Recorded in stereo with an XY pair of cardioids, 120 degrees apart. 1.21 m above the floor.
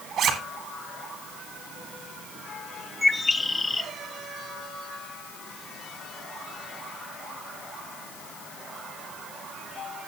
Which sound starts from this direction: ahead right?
A zipper, at 0.2 s.